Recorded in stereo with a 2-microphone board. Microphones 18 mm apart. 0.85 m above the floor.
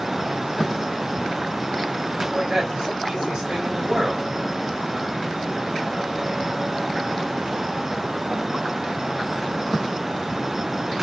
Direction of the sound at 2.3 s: 30° right (ahead or behind).